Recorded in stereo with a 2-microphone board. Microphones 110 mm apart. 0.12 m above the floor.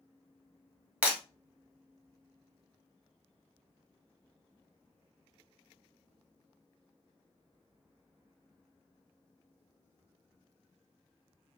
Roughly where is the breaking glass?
Centre.